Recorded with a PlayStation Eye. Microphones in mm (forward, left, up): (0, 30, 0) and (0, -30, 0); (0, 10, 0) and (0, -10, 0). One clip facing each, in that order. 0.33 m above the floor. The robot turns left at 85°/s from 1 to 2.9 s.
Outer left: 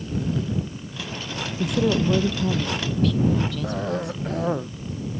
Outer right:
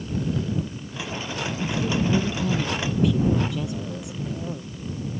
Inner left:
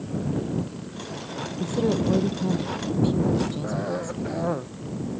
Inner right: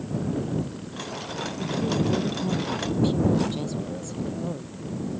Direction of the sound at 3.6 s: 70° left (ahead or behind).